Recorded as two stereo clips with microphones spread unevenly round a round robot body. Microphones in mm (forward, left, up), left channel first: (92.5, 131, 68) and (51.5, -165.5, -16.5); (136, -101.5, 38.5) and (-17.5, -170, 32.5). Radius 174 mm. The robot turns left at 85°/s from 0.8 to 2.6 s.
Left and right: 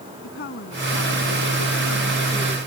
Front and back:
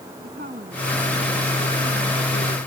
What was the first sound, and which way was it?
A woman speaking, 140° left.